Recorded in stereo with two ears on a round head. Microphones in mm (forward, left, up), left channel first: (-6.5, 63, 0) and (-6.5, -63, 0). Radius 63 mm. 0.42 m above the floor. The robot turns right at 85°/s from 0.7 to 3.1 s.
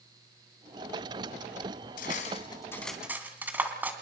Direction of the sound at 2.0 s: 75° left (ahead or behind).